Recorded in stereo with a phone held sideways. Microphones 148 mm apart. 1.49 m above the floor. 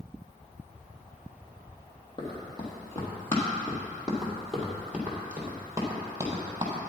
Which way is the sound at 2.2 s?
30° left (ahead or behind).